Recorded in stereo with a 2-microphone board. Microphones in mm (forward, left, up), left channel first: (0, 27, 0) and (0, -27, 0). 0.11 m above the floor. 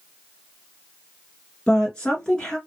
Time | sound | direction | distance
1.7 | a woman speaking | 15° left (ahead or behind) | 1.4 m